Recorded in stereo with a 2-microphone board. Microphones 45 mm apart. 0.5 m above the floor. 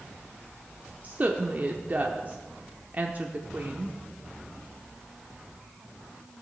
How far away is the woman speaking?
About 0.9 m.